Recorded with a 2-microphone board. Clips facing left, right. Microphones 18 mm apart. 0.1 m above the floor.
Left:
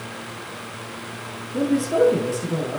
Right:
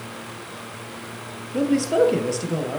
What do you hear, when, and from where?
1.5 s a man speaking: 40° right (ahead or behind), 1.7 m